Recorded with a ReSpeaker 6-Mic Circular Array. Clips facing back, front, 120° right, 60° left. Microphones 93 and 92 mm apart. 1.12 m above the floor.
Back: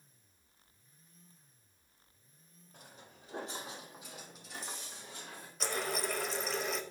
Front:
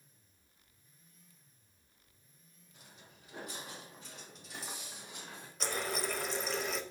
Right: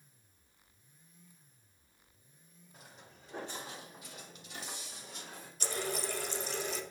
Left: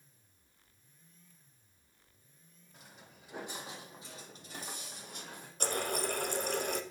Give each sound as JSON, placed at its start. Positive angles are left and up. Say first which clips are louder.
{"t": 2.7, "sound": "footsteps", "louder": "back 4 dB, even", "azimuth_deg": 150, "distance_m": 1.9}
{"t": 5.6, "sound": "a running tap", "louder": "back 1 dB, left 3 dB", "azimuth_deg": 90, "distance_m": 0.6}